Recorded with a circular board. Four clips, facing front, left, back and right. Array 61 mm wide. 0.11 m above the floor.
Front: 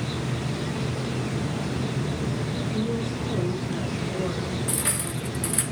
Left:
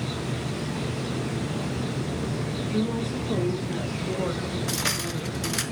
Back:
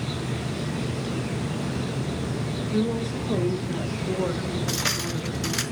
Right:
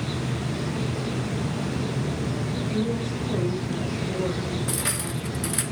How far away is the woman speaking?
About 6 m.